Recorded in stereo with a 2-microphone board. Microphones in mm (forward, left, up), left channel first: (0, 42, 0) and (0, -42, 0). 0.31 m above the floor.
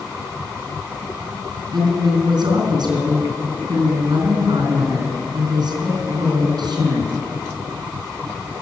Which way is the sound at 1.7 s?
65° right (ahead or behind).